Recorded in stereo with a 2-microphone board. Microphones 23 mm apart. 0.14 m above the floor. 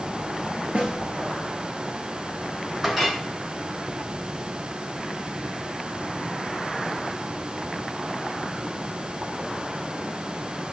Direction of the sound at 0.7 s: 60° right (ahead or behind).